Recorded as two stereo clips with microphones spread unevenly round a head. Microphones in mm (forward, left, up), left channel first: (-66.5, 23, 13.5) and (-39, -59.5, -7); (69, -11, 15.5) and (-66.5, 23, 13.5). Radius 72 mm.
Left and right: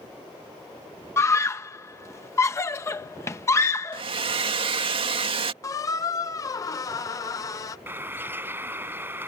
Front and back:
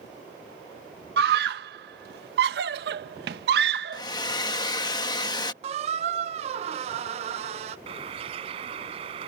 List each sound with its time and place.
1.2 s a scream: 160° left
3.9 s a hair dryer: 70° right
5.6 s a squeak: 130° left
7.9 s a bird: 140° right